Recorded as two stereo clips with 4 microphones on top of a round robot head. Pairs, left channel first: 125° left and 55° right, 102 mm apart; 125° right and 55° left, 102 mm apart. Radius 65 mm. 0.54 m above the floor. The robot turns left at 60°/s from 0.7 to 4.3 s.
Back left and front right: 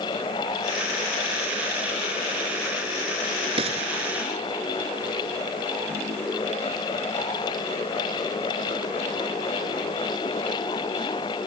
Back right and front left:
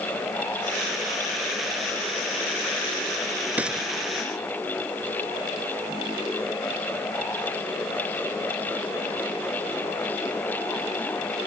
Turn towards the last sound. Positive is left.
turn(degrees=-65)